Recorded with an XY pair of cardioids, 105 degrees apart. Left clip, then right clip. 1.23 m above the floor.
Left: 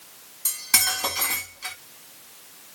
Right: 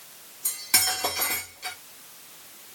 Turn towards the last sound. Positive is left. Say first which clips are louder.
# left 2 dB
turn(degrees=35)